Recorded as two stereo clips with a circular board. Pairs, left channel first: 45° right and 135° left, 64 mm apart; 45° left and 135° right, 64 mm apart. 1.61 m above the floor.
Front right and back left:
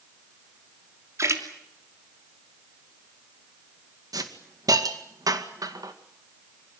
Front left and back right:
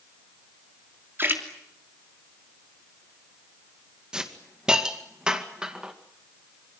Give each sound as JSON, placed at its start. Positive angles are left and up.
{"t": 1.2, "sound": "a splash", "azimuth_deg": 170, "distance_m": 3.0}
{"t": 4.1, "sound": "a hiss", "azimuth_deg": 145, "distance_m": 2.0}